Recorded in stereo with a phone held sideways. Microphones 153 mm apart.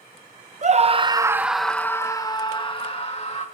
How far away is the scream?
About 0.8 m.